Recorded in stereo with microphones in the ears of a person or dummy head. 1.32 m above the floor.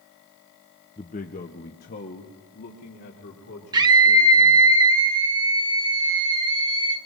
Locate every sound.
1.0 s a man speaking: 25° left (ahead or behind), 0.7 m; by 4.7 s 65° left (ahead or behind), 4.5 m
3.7 s a scream: 20° right (ahead or behind), 1.2 m